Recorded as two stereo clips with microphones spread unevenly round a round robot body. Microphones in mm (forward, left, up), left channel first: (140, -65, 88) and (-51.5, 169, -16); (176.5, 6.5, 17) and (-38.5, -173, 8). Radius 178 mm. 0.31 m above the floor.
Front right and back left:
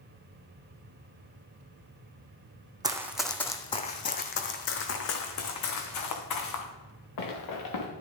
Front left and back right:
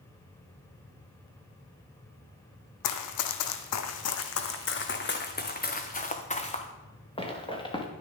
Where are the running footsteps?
45° left, 0.9 m; by 7.9 s 35° right, 2.5 m.